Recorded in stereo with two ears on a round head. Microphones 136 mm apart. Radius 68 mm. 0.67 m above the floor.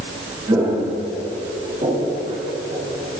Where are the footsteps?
25° right (ahead or behind), 3.5 m; by 3.1 s 45° right (ahead or behind), 4 m.